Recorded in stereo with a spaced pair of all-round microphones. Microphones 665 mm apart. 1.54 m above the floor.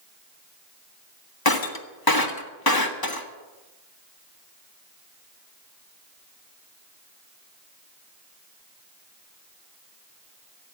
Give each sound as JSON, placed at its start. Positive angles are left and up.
{"t": 1.4, "sound": "breaking glass", "side_deg": 35, "distance_m": 1.4}